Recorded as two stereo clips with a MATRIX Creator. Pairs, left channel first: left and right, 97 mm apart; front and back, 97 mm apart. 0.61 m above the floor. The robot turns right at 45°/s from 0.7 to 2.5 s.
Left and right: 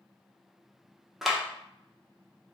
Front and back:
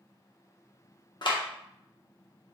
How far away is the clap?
About 0.6 m.